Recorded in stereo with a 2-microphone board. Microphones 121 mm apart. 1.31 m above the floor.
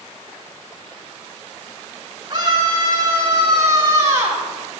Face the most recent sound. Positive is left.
turn(degrees=-25)  # may be behind; listen again after turning